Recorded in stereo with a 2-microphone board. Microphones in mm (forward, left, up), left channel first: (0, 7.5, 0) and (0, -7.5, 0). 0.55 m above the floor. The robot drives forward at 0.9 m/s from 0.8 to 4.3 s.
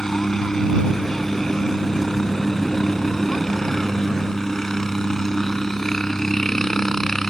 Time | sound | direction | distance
0.0 | a helicopter | 30° left (ahead or behind) | ?